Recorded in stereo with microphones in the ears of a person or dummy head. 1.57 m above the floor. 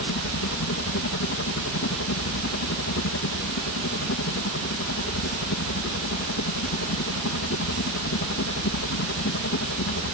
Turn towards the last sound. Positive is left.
turn(degrees=60)  # may be behind; listen again after turning